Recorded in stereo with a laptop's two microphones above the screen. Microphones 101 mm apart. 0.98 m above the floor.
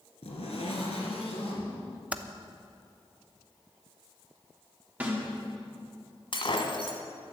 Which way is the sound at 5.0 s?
15° right (ahead or behind).